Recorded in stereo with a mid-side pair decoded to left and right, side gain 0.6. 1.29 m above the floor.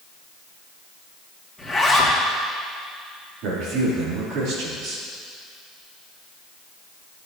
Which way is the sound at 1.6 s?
Straight ahead.